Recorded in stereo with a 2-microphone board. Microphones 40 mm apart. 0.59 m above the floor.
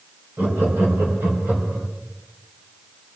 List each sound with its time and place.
0.4 s laughter: 55° right (ahead or behind), 3.5 m; by 1.9 s 70° right (ahead or behind), 4 m